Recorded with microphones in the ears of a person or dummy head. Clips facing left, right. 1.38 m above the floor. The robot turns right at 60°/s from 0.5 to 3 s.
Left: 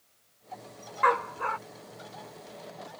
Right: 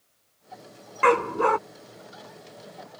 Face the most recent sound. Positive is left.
turn(degrees=-15)